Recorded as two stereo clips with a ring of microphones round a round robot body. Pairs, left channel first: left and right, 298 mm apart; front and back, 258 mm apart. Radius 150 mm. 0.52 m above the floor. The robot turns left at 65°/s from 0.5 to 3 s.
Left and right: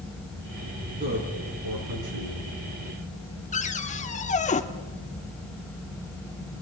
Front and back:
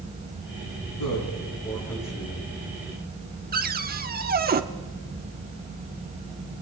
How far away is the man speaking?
About 7.5 m.